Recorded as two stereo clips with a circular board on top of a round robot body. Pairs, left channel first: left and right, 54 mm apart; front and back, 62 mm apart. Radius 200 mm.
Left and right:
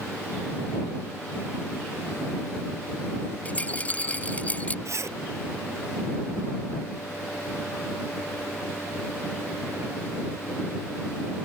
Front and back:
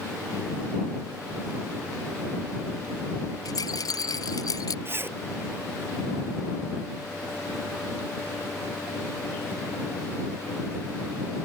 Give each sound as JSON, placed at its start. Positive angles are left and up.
{"t": 3.5, "sound": "a rattle", "azimuth_deg": 25}
{"t": 4.8, "sound": "a zipper", "azimuth_deg": -125}